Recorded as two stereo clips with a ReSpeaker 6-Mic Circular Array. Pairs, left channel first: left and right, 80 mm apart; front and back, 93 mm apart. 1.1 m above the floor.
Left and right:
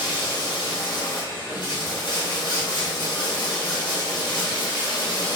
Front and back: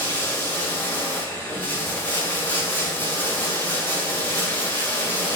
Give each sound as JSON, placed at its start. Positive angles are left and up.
{"t": 0.0, "sound": "running water", "azimuth_deg": 70, "distance_m": 1.9}